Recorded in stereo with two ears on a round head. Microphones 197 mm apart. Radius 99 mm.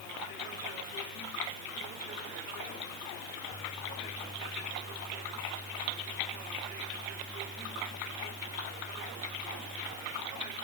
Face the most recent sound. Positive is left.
No sound to turn to.